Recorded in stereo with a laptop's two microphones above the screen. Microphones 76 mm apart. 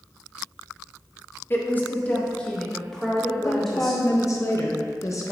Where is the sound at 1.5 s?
30° left (ahead or behind), 0.8 m; by 4.0 s centre (ahead or behind), 1.9 m.